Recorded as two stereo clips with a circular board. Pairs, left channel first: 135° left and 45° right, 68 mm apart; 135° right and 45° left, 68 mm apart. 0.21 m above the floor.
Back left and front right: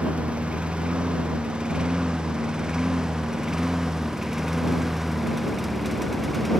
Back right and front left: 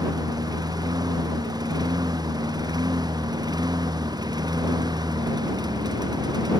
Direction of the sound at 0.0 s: 30° left.